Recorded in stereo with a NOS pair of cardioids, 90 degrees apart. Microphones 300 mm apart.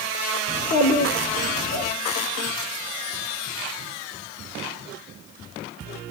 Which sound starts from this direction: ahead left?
A child speaking, at 0.5 s.